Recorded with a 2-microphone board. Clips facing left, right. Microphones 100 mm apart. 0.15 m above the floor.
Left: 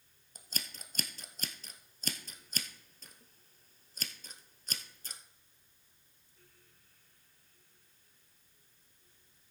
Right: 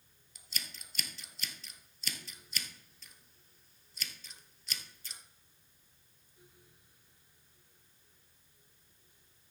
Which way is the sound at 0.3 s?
45° left (ahead or behind).